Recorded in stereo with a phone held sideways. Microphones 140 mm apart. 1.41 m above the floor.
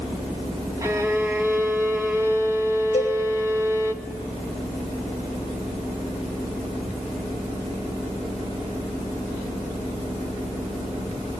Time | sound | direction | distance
0.8 | a violin | 20° right (ahead or behind) | 1.9 m
2.9 | a cowbell | 45° left (ahead or behind) | 5.5 m